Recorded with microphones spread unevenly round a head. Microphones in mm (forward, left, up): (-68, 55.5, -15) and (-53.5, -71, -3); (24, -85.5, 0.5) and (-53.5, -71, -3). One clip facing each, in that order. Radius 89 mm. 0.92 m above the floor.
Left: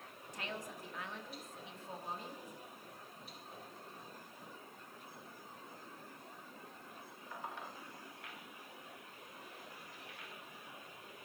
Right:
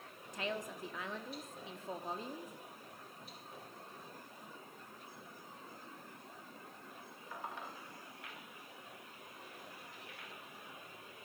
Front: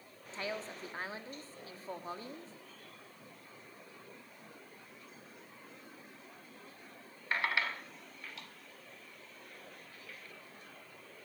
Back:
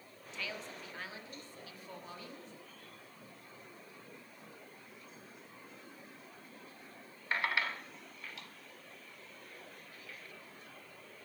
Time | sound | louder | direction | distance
0.3 | a woman speaking | right 5 dB, front 4 dB | 65° right | 1.5 m